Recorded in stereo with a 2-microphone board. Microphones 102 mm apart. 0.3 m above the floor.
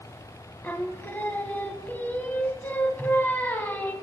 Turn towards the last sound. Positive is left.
turn(degrees=20)  # may be behind; listen again after turning